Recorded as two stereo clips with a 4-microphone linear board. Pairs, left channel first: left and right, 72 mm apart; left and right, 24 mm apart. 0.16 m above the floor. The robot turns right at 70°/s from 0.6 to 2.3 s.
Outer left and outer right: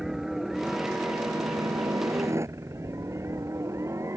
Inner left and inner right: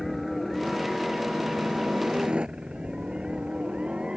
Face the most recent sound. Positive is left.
turn(degrees=-45)  # may be behind; listen again after turning